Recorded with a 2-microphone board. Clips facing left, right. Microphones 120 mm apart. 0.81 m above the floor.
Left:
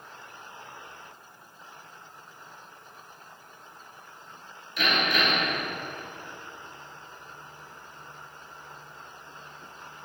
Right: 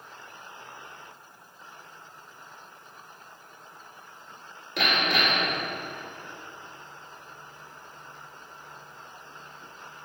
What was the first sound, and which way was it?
Hammering, 80° right.